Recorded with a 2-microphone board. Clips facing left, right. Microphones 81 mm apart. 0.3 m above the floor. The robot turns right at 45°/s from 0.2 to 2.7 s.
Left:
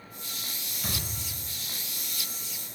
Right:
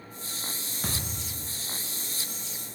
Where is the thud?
125° right, 0.8 m; by 1.6 s 90° right, 0.8 m.